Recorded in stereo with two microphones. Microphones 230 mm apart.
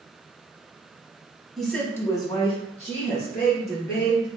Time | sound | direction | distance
1.6 | a woman speaking | centre (ahead or behind) | 1.1 m